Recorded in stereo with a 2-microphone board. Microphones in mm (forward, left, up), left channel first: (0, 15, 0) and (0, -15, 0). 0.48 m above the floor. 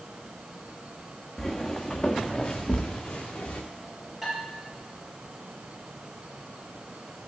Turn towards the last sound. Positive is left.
turn(degrees=0)  # may be behind; listen again after turning